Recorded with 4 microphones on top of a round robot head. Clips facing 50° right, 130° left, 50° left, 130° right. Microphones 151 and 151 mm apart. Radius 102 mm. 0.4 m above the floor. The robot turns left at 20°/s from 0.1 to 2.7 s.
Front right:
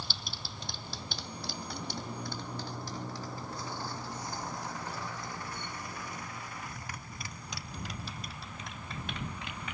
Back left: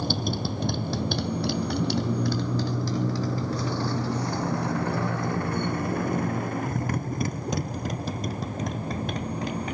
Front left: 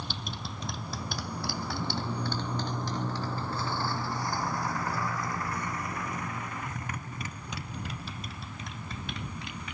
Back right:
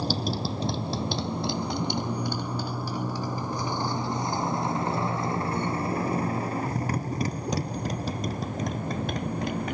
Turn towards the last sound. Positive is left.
turn(degrees=-175)